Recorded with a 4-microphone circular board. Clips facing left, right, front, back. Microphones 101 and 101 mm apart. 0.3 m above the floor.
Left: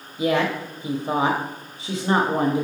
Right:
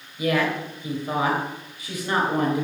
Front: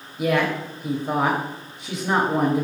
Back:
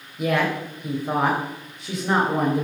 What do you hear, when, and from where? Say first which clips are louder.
0.2 s a woman speaking: left 2 dB, front 1 dB; 90° left, 0.9 m